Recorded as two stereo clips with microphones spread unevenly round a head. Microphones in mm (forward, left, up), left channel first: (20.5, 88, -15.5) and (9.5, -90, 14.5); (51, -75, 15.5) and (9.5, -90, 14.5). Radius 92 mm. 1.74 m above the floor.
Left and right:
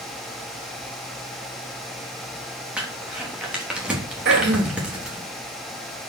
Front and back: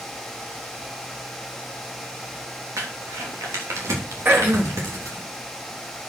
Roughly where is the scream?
I don't hear a scream.